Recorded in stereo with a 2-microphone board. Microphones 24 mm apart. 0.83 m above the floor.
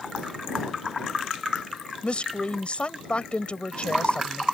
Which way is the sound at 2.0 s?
50° left (ahead or behind).